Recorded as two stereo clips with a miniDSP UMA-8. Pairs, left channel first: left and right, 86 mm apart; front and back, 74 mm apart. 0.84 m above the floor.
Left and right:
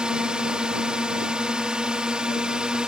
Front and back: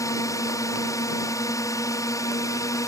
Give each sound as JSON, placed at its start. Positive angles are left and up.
{"t": 0.0, "sound": "a drone", "azimuth_deg": -15}